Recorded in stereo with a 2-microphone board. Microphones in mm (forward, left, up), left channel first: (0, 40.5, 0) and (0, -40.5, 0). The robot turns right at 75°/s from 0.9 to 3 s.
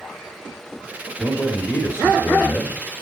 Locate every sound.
1.2 s a man speaking: 10° left, 1.3 m; by 2.8 s 130° left, 1.3 m